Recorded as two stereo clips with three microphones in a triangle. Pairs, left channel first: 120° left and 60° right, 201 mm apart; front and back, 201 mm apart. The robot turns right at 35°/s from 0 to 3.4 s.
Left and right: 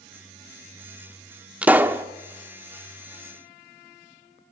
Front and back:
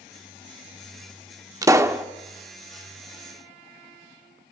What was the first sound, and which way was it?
A pop, 135° right.